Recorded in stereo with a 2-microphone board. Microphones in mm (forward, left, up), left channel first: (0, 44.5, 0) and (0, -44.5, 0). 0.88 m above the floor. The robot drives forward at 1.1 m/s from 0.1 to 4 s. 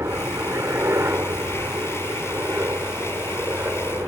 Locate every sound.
0.0 s a helicopter: 30° right (ahead or behind); by 4.1 s 25° right (ahead or behind)